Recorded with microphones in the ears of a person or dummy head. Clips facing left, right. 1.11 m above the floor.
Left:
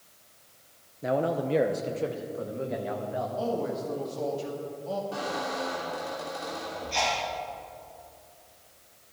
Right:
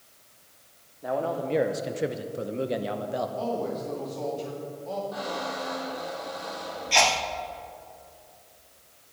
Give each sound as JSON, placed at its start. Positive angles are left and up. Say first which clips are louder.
{"t": 1.0, "sound": "a man speaking", "louder": "left 2 dB", "side_deg": 30, "distance_m": 0.6}
{"t": 3.4, "sound": "a man speaking", "louder": "even", "side_deg": 10, "distance_m": 2.0}
{"t": 5.1, "sound": "a squeak", "louder": "even", "side_deg": 40, "distance_m": 3.0}
{"t": 6.9, "sound": "a sneeze", "louder": "right 5 dB", "side_deg": -80, "distance_m": 0.7}